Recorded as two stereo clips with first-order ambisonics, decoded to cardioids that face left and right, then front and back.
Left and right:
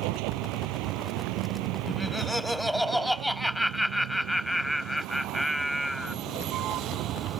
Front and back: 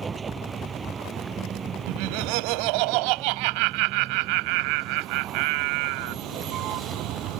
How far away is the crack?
I don't hear a crack.